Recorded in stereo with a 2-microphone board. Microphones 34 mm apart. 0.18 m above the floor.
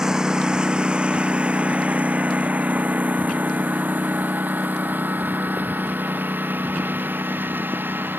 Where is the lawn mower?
15° right (ahead or behind); by 8.2 s 70° right (ahead or behind).